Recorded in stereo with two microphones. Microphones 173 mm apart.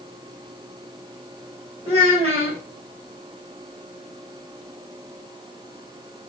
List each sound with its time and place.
1.9 s a child speaking: 35° right (ahead or behind), 2.5 m